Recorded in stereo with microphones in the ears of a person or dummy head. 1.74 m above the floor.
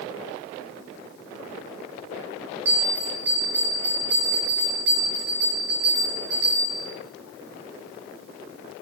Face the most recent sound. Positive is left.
turn(degrees=-10)  # may be behind; listen again after turning